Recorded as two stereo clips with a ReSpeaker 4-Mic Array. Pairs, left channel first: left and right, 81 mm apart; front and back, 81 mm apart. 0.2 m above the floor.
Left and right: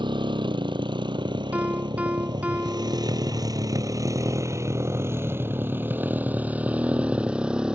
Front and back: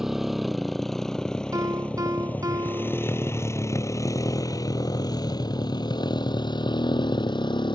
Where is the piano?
155° right.